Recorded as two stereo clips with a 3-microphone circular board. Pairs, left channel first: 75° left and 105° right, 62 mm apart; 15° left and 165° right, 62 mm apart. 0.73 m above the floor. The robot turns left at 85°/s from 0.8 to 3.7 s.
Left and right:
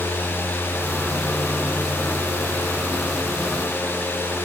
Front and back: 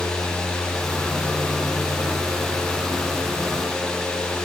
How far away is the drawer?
No drawer in this recording.